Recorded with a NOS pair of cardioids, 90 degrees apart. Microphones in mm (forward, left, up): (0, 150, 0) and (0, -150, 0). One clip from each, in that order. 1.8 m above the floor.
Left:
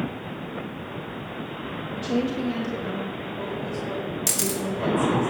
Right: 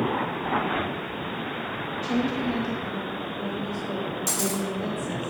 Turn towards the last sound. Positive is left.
turn(degrees=50)